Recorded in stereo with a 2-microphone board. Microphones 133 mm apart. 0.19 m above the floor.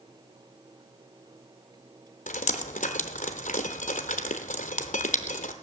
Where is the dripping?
80° left, 0.9 m.